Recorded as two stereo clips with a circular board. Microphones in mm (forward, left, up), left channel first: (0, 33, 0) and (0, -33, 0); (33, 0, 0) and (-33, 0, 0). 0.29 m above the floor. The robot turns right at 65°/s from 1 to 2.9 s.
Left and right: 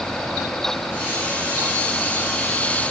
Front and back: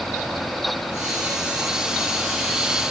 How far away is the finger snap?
I don't hear a finger snap.